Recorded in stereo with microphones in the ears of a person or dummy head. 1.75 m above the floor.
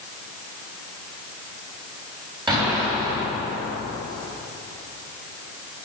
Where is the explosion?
25° right (ahead or behind), 4 m.